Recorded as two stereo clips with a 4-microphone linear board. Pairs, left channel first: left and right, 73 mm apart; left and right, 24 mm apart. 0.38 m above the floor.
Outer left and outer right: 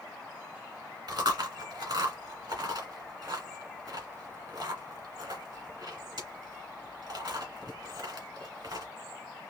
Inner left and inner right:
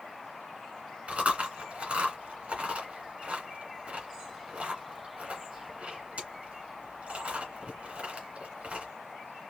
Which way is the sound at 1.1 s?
75° right (ahead or behind).